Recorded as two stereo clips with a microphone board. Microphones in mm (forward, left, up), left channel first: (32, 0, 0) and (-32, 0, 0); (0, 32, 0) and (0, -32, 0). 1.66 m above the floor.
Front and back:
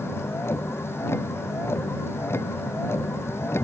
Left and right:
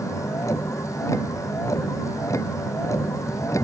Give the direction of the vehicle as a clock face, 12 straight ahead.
10 o'clock.